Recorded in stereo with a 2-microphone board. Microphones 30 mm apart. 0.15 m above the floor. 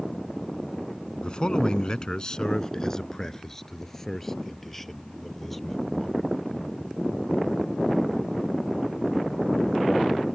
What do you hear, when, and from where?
1.2 s a man speaking: 30° left (ahead or behind); by 6.2 s 10° left (ahead or behind)